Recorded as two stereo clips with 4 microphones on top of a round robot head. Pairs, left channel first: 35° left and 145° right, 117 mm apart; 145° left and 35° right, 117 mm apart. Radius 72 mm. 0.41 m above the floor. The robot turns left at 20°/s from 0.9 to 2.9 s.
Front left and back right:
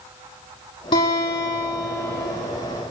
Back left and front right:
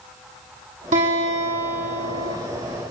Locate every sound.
0.9 s a guitar: 10° right, 8 m; by 2.4 s 40° right, 8 m